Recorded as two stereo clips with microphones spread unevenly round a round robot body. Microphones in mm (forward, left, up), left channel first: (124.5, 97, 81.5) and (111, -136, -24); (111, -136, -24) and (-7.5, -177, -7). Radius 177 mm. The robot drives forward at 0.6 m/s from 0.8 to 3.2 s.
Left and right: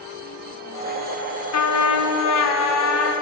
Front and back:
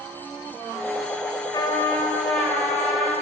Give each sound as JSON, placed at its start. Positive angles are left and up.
{"t": 1.5, "sound": "a trumpet", "azimuth_deg": 65, "distance_m": 1.0}